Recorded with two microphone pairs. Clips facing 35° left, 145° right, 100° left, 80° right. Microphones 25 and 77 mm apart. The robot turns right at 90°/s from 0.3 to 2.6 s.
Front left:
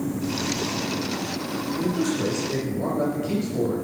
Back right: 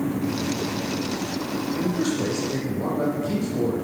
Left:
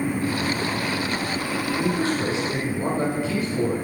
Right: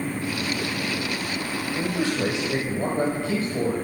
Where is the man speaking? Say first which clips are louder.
Front left 1 dB, left 1 dB; 105° right, 4 m; by 3.7 s 30° right, 4 m.